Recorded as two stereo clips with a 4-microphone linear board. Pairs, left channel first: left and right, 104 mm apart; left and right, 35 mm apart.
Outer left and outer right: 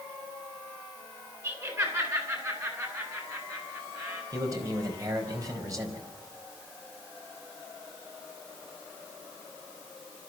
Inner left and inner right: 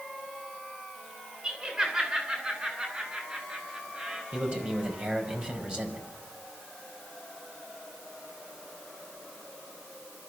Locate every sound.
1.4 s laughter: 30° right (ahead or behind), 9.5 m; by 4.2 s 35° right (ahead or behind), 7.5 m
4.3 s a man speaking: 35° right (ahead or behind), 5 m